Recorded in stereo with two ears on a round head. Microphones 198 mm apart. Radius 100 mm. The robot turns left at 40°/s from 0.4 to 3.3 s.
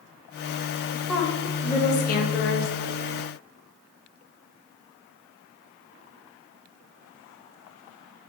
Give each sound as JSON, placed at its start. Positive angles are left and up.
{"t": 1.1, "sound": "a woman speaking", "azimuth_deg": 180, "distance_m": 0.6}